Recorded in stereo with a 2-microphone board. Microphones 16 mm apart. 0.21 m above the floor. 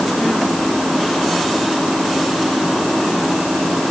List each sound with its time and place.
Only background noise.